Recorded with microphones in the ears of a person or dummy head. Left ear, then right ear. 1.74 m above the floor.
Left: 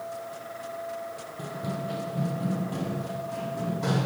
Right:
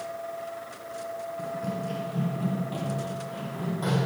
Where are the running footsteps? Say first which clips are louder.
Left 1 dB; 5° right (ahead or behind), 1.9 m; by 4.1 s 45° right (ahead or behind), 4.5 m.